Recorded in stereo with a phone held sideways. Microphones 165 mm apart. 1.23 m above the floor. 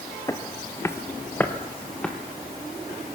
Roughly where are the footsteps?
Centre.